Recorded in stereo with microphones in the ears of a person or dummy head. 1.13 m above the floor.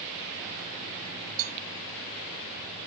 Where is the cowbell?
45° right (ahead or behind).